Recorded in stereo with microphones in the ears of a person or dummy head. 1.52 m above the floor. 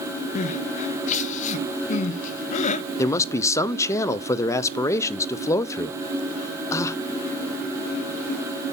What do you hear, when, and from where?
0.3 s crying: 45° left (ahead or behind), 0.7 m
3.0 s a man speaking: 20° left (ahead or behind), 0.7 m